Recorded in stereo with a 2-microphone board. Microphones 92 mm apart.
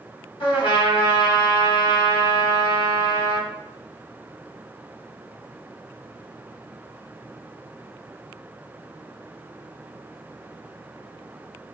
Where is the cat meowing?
I don't hear a cat meowing.